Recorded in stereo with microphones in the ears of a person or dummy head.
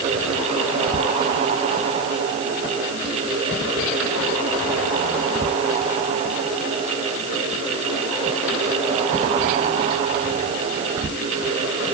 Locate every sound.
Only background noise.